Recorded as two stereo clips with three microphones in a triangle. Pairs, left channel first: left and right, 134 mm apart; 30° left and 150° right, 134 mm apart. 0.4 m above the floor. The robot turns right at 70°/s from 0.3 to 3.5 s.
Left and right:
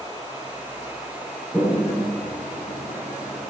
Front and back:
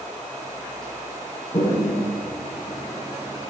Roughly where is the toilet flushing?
Ahead.